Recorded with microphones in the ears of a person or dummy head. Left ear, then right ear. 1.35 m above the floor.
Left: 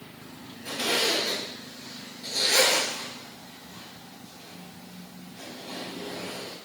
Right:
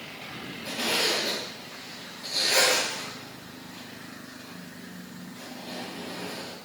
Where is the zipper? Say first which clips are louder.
Left 1 dB; 25° right (ahead or behind), 2.5 m.